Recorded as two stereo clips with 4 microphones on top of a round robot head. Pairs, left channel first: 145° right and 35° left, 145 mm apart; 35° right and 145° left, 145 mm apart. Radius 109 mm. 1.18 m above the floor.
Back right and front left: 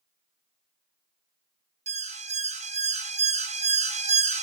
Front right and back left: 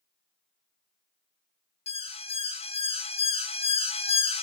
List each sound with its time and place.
1.9 s an alarm: 5° left, 2 m